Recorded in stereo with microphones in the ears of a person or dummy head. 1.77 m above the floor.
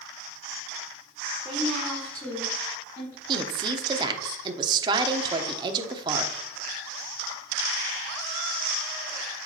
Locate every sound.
1.4 s a woman speaking: centre (ahead or behind), 1.7 m; by 3.2 s 30° left (ahead or behind), 2.0 m
3.3 s a woman speaking: 25° right (ahead or behind), 1.0 m